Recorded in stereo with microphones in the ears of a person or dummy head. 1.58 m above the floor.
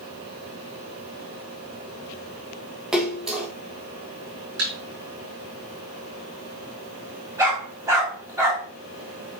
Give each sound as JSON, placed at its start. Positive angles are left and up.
{"t": 2.9, "sound": "a splash", "side_deg": -5, "distance_m": 1.3}
{"t": 4.6, "sound": "a thud", "side_deg": -50, "distance_m": 5.0}
{"t": 7.4, "sound": "a dog barking", "side_deg": -10, "distance_m": 3.5}